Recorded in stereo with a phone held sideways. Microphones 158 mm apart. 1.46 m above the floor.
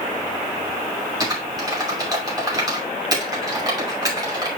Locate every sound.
1.2 s typing on a keyboard: 25° right (ahead or behind), 2.5 m